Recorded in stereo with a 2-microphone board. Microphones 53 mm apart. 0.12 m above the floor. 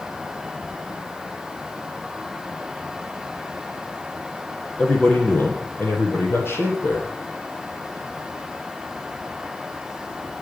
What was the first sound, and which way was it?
A man speaking, 25° left (ahead or behind).